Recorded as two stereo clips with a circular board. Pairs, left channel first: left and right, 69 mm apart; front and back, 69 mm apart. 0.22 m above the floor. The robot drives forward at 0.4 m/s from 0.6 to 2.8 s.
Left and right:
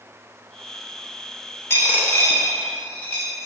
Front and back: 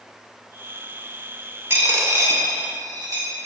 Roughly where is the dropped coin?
Behind left.